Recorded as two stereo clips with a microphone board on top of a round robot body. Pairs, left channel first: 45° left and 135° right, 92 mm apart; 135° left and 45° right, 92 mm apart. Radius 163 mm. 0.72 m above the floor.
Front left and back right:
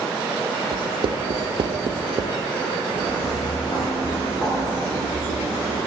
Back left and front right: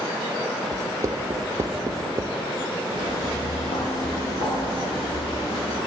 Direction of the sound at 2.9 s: 120° left.